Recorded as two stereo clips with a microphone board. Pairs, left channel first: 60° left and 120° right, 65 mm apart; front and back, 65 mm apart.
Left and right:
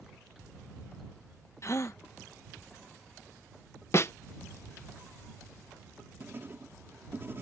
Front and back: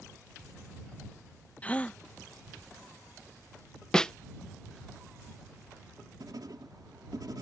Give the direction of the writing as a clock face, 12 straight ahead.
6 o'clock.